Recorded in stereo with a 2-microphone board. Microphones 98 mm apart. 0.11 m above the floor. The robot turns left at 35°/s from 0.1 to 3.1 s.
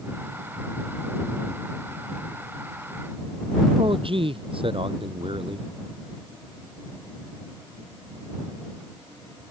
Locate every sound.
3.8 s a man speaking: 70° right (ahead or behind)